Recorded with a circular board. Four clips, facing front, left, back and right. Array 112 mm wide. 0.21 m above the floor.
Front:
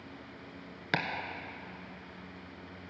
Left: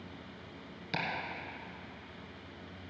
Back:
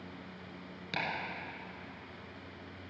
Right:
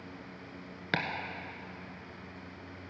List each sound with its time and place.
0.9 s chopping: 50° right, 1.2 m